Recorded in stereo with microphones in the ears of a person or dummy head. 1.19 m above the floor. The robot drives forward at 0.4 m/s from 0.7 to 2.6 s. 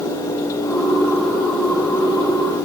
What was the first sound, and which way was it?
Only background noise.